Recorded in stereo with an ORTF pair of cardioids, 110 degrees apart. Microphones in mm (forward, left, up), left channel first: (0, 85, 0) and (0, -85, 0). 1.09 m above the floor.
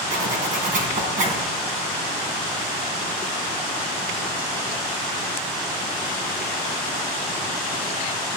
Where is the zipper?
50° right, 3.5 m.